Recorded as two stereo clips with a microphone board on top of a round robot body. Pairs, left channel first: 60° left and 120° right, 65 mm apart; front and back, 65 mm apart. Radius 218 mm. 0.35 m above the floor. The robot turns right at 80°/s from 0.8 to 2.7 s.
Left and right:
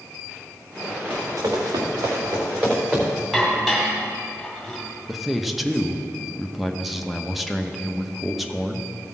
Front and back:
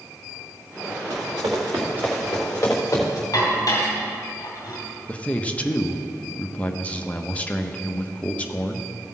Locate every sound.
1.1 s running footsteps: 170° left, 2 m; by 3.2 s 45° right, 3.5 m
3.3 s dishes clattering: 35° right, 2.5 m
5.1 s a man speaking: 35° right, 1.0 m